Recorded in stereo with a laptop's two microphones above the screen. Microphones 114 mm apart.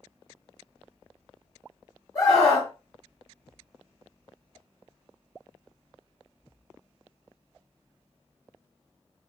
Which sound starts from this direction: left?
A scream, at 2.1 s.